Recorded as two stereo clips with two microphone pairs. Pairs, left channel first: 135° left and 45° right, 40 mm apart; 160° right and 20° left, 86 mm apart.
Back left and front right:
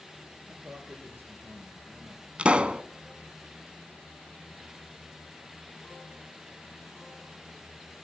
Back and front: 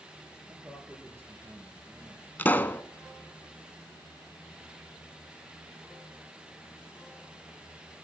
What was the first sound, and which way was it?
A man speaking, 35° right.